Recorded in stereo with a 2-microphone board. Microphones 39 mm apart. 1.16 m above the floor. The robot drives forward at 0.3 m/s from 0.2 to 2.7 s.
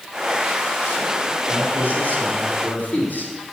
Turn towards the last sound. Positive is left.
turn(degrees=50)  # may be behind; listen again after turning